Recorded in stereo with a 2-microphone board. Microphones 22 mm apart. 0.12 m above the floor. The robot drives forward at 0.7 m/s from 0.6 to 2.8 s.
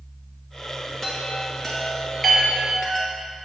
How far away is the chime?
About 1.6 m.